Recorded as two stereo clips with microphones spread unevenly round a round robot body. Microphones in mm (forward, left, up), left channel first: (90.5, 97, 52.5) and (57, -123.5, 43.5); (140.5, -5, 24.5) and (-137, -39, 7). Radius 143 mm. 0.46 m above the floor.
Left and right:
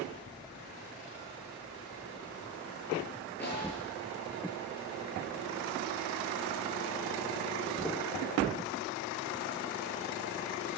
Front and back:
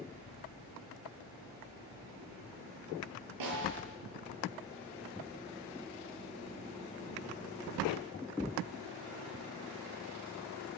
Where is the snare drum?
165° left, 9 m.